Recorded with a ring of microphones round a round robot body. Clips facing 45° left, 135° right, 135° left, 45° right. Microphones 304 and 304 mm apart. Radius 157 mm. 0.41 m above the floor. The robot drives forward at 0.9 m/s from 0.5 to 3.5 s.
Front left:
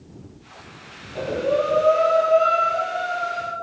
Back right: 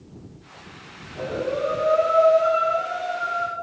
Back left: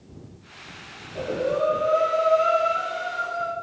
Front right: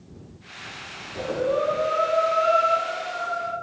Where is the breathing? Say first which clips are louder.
Front left 3 dB, front right 1 dB; 40° left, 4 m; by 3.5 s 70° left, 3 m.